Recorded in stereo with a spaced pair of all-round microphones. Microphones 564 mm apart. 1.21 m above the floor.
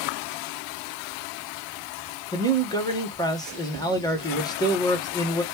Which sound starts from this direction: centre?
A man speaking, at 2.3 s.